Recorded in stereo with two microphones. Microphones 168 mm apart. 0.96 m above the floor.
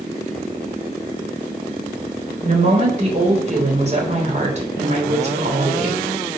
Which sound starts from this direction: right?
A woman speaking, at 2.4 s.